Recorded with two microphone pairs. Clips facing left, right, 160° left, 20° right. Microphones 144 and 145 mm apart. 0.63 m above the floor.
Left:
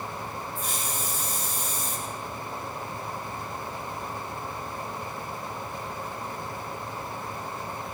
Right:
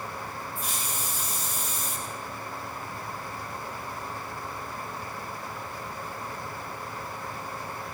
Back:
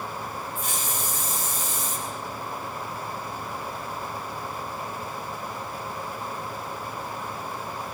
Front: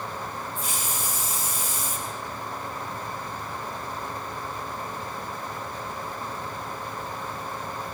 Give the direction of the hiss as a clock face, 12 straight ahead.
6 o'clock.